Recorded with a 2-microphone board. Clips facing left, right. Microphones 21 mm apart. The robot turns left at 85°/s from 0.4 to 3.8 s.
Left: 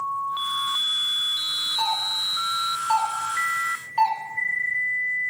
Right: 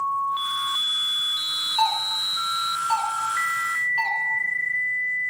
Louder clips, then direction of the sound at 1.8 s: Right 2 dB; 45° right (ahead or behind).